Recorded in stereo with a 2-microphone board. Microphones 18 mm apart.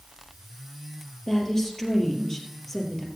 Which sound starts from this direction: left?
A woman speaking, at 1.3 s.